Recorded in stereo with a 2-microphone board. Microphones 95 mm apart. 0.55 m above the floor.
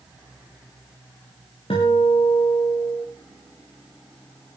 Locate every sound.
1.7 s a guitar: 75° left (ahead or behind), 9 m